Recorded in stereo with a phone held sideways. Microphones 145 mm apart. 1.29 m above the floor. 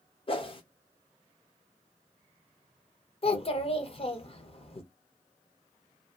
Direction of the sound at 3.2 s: 40° left (ahead or behind).